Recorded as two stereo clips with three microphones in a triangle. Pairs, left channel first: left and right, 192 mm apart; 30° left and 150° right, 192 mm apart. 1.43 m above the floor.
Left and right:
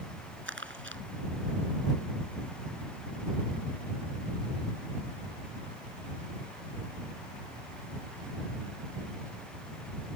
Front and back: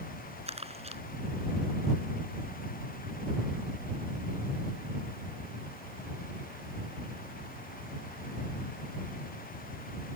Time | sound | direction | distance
0.5 | crumpling | 95° right | ?